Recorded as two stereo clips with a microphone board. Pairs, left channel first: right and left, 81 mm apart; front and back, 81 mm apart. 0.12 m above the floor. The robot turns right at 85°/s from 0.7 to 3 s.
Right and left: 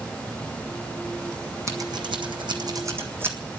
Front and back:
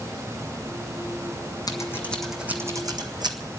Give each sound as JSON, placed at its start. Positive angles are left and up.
{"t": 1.7, "sound": "scissors", "azimuth_deg": 40, "distance_m": 1.5}